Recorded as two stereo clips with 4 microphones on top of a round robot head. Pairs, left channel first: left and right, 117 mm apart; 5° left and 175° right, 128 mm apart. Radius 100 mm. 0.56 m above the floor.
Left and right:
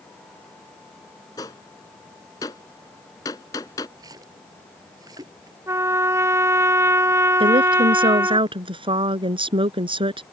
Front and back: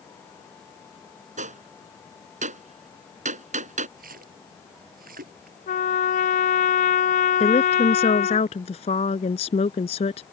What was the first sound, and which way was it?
A gunshot, 160° left.